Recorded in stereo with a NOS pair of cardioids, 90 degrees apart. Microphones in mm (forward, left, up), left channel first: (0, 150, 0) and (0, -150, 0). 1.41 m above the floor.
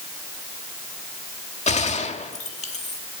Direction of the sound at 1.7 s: 25° left.